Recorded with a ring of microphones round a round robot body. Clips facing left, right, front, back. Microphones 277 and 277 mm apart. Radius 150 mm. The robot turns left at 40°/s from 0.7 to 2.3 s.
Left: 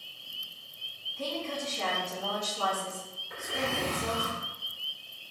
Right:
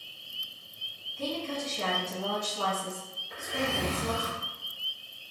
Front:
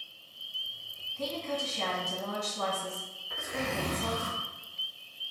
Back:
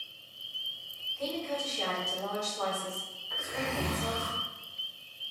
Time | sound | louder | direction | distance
1.2 | a woman speaking | right 2 dB, even | 5° left | 1.4 m
3.3 | a zipper | right 2 dB, front 1 dB | 5° left | 1.9 m